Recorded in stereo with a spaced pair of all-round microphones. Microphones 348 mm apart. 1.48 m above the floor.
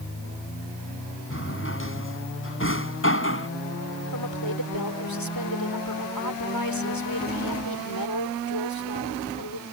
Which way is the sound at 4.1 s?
75° left (ahead or behind).